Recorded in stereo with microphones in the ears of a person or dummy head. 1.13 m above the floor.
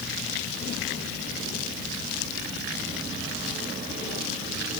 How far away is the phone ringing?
No phone ringing in this recording.